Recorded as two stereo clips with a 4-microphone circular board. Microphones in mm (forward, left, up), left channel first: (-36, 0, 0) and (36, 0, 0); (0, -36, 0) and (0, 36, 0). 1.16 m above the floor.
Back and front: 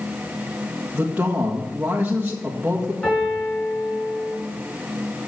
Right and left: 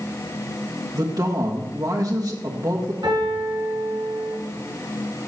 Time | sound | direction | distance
0.9 | a man speaking | 65° left | 1.7 m
3.0 | a piano | 110° left | 5 m